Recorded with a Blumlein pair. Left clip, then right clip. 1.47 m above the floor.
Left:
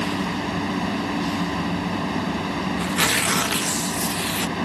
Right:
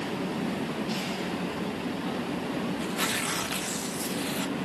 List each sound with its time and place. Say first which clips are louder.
0.0 s a fan: left 6 dB; 35° left
2.8 s tearing paper: left 10 dB; 65° left